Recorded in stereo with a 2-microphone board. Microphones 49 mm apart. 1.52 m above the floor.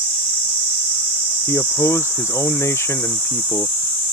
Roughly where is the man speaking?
Left.